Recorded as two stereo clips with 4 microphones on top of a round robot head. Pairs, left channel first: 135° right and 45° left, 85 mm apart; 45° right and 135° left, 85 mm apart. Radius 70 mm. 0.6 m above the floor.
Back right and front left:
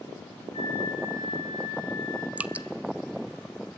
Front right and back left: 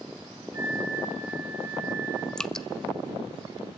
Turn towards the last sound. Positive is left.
turn(degrees=20)